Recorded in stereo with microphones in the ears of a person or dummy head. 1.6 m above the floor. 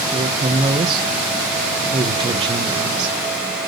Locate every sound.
0.1 s a woman speaking: 30° right (ahead or behind), 1.4 m